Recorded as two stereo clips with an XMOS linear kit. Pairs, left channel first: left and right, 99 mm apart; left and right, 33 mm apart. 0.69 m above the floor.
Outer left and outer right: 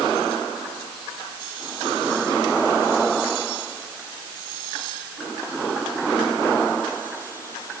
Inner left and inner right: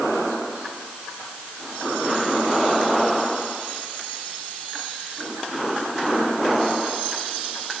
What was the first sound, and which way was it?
Only background noise.